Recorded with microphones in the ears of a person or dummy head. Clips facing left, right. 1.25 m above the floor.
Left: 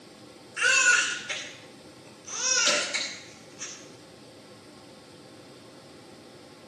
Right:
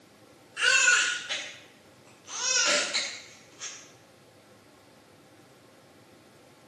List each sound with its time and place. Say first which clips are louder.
0.6 s a baby crying: left 1 dB; 30° left (ahead or behind), 2.5 m
2.7 s hammering: even; 60° left (ahead or behind), 7.5 m